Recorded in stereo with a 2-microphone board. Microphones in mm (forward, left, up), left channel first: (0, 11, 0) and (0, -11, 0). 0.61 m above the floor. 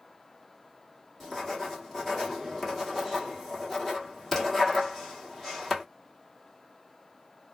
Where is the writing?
10° left (ahead or behind), 1.5 m.